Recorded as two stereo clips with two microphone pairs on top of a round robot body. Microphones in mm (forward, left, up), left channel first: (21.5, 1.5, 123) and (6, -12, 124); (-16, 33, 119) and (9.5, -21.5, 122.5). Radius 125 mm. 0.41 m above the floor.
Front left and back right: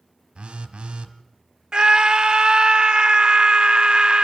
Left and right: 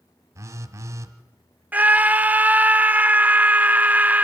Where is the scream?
120° right, 0.9 m.